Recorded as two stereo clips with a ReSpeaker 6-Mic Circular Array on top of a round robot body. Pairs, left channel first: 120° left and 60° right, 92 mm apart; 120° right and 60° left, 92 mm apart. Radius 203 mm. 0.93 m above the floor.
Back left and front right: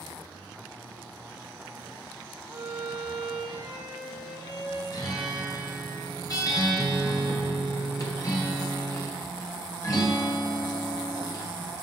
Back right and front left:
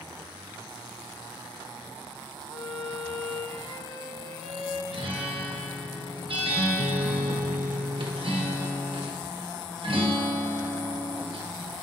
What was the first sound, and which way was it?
A violin, 90° right.